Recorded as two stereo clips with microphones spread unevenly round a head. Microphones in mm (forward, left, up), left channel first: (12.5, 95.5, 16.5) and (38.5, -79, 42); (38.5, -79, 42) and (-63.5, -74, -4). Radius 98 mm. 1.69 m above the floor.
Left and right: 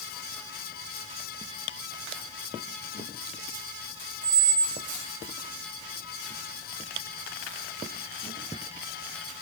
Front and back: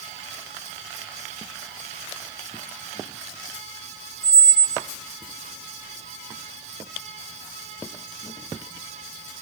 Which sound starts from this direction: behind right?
A squeak, at 4.2 s.